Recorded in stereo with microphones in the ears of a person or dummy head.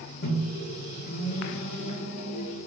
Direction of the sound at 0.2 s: 60° left (ahead or behind).